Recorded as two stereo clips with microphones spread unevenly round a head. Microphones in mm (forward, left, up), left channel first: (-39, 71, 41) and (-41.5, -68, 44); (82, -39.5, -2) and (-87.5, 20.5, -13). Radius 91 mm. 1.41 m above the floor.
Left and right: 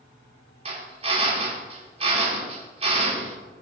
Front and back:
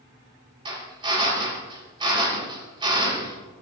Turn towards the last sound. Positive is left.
turn(degrees=-135)